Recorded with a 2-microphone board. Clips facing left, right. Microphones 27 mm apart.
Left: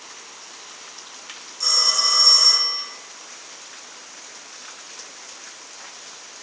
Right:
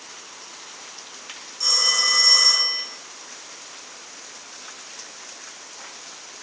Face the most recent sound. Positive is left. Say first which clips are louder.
# even
turn(degrees=-10)  # may be behind; listen again after turning